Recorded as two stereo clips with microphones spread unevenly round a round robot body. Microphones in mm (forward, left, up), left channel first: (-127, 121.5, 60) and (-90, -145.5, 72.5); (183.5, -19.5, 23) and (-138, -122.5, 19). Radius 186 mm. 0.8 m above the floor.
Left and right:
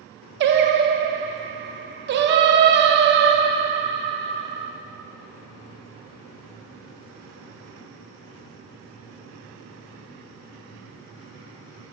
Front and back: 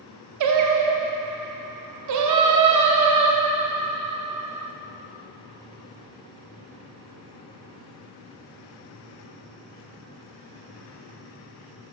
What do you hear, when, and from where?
0.4 s singing: 130° right, 0.6 m